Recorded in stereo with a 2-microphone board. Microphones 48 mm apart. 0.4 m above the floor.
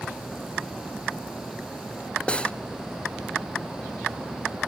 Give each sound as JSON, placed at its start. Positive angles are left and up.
{"t": 2.3, "sound": "cutlery clinking", "side_deg": 25, "distance_m": 1.1}